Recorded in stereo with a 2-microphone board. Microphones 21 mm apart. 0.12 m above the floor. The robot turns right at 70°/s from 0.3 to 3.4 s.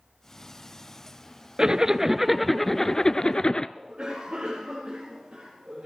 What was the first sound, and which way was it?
A zipper, 55° right.